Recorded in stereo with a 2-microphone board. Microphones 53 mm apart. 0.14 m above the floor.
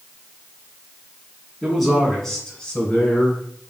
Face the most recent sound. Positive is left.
turn(degrees=30)  # may be behind; listen again after turning